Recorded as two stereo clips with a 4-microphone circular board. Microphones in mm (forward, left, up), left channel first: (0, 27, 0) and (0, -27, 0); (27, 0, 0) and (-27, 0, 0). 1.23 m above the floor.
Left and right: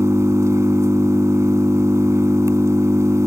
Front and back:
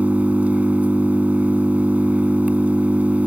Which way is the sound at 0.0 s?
120° right.